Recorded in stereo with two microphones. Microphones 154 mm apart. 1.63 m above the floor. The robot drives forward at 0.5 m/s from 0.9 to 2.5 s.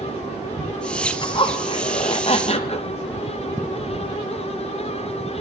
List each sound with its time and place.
1.2 s a zipper: 35° left (ahead or behind), 1.1 m; by 2.9 s 40° left (ahead or behind), 0.9 m